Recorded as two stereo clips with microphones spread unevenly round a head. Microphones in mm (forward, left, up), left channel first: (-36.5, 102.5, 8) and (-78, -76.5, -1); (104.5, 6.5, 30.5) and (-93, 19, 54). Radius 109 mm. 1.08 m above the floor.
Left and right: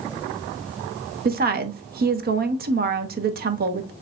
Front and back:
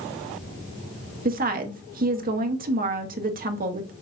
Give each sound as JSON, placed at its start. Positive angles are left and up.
{"t": 1.2, "sound": "a woman speaking", "azimuth_deg": -135, "distance_m": 0.9}